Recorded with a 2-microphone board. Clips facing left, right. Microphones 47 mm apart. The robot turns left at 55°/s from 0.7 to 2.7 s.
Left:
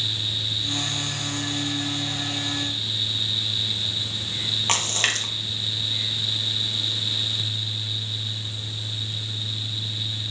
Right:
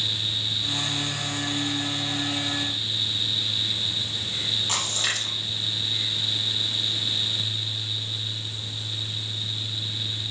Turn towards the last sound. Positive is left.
turn(degrees=65)  # may be behind; listen again after turning